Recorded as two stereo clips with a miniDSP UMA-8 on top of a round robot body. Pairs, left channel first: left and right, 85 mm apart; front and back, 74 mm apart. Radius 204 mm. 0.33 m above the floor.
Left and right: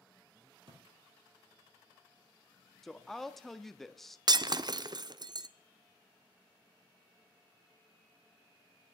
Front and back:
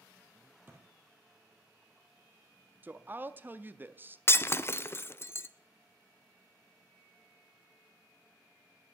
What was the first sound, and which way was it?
A thud, 120° right.